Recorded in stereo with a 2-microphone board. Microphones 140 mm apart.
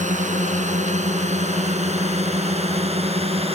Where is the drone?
55° right (ahead or behind); by 3.5 s 45° right (ahead or behind).